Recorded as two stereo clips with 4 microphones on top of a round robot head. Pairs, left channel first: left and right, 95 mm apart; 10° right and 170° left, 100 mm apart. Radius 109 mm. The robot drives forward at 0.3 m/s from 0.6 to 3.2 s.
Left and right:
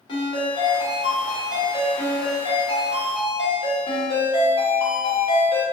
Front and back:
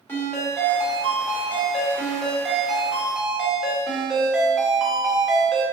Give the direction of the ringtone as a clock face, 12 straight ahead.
10 o'clock.